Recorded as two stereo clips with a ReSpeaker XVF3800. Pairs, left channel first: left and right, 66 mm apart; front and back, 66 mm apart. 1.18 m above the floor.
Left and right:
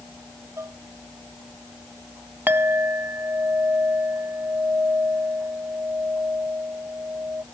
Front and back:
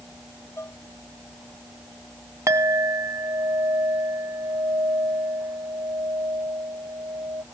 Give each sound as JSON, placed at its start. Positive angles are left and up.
{"t": 0.6, "sound": "dishes clattering", "azimuth_deg": -45}
{"t": 2.5, "sound": "a clink", "azimuth_deg": -145}